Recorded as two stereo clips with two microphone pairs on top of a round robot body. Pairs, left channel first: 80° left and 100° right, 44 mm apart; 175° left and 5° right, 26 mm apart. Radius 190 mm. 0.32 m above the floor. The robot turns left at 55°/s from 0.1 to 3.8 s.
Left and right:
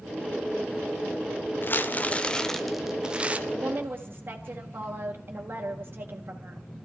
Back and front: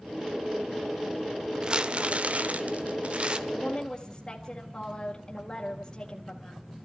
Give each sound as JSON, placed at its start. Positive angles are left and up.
{"t": 1.6, "sound": "crumpling", "azimuth_deg": 50, "distance_m": 1.1}
{"t": 3.5, "sound": "a woman speaking", "azimuth_deg": -110, "distance_m": 2.5}